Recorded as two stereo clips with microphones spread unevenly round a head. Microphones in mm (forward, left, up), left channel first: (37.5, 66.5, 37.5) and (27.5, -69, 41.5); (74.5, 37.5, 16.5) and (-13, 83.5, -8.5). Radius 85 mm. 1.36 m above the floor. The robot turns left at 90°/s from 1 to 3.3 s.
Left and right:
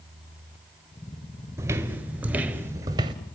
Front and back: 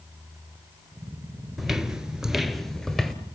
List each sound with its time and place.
1.6 s footsteps: 75° right, 1.4 m; by 3.1 s 90° right, 1.5 m